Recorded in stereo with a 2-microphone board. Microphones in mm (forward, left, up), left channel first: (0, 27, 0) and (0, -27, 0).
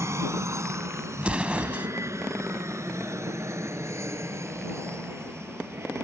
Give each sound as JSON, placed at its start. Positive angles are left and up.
{"t": 0.0, "sound": "an aircraft", "side_deg": -60}
{"t": 1.2, "sound": "an explosion", "side_deg": -25}